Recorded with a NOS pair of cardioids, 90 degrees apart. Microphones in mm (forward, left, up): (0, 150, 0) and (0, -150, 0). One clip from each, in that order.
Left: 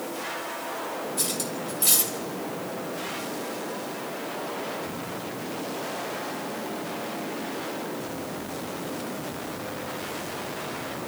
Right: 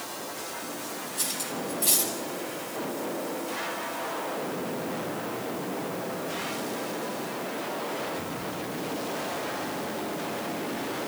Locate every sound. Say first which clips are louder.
1.2 s cutlery clinking: left 2 dB; 35° left, 5.5 m